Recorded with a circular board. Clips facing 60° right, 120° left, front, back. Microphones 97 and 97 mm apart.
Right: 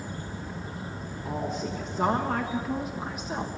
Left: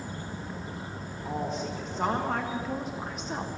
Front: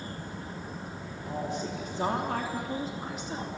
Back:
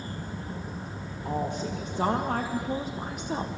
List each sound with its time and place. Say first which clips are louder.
1.2 s a woman speaking: right 1 dB, back 3 dB; 150° right, 2.5 m; by 3.6 s 145° right, 1.2 m